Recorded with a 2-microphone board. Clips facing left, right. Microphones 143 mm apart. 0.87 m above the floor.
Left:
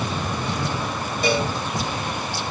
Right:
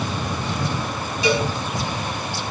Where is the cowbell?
50° left (ahead or behind), 4 m.